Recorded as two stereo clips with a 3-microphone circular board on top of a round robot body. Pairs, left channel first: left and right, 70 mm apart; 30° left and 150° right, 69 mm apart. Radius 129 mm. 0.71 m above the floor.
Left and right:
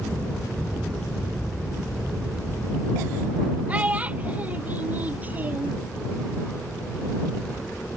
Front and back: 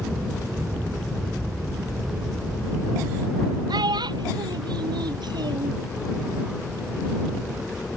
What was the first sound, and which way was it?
A child speaking, 160° right.